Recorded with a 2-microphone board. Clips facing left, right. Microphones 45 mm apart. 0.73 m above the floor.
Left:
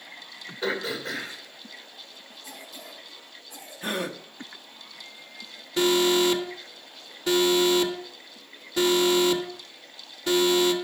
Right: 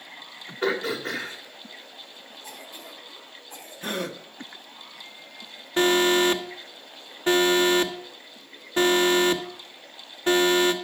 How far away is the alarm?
About 1.1 m.